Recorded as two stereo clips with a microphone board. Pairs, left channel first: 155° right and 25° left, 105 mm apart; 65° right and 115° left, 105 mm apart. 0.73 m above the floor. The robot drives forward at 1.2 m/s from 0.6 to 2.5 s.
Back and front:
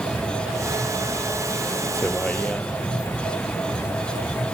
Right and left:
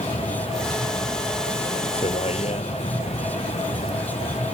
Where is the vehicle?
75° right; by 4.5 s 80° right.